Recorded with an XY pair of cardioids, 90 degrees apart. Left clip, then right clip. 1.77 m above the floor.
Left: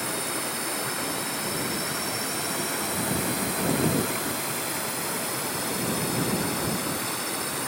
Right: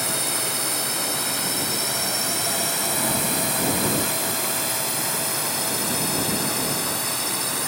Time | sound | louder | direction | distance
0.0 | a drone | right 4 dB | 60° right | ?